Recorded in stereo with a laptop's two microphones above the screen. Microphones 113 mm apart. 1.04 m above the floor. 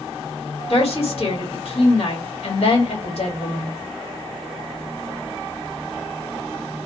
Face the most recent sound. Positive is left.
turn(degrees=65)  # may be behind; listen again after turning